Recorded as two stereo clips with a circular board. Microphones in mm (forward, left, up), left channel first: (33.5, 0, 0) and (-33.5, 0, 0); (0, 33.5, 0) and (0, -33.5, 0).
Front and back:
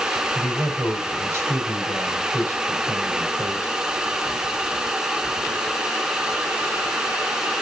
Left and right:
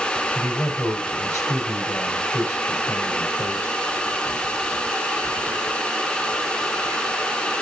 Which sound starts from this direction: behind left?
A man speaking, at 0.3 s.